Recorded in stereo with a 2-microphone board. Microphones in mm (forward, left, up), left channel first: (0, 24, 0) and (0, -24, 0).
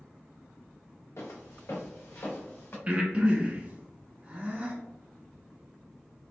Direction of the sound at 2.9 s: 25° right (ahead or behind).